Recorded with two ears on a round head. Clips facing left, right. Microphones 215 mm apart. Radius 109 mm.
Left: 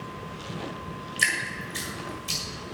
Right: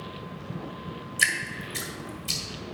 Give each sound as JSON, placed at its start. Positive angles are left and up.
{"t": 1.2, "sound": "dripping", "side_deg": -5, "distance_m": 1.7}